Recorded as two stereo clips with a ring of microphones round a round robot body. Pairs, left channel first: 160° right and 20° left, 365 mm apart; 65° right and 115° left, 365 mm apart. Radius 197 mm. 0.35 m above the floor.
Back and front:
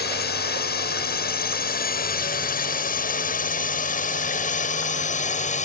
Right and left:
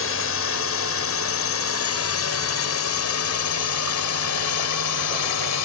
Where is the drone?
105° right; by 5.7 s 90° right.